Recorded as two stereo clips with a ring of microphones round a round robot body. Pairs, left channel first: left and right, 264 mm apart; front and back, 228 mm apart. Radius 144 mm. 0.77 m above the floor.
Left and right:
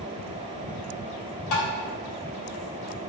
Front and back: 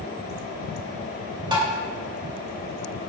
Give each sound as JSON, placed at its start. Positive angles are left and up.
{"t": 1.5, "sound": "tapping", "azimuth_deg": 110, "distance_m": 2.5}